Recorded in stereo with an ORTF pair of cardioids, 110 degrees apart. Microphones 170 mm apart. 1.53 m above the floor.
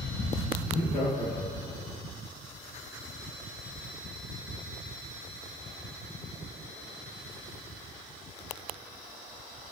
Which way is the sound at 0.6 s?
70° left.